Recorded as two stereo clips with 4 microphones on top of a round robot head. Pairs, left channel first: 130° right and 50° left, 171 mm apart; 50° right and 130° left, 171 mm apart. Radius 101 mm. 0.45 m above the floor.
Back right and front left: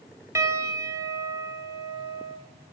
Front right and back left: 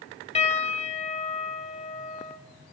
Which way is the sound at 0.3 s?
15° right.